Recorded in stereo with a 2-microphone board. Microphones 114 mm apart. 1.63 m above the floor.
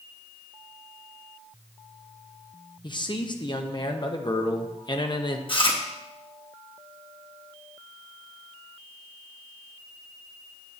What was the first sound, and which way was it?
A man speaking, 40° left (ahead or behind).